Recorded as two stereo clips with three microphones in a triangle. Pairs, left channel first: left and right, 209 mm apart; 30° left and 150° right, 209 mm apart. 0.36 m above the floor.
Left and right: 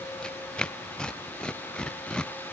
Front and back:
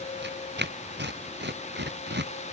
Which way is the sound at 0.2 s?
175° left.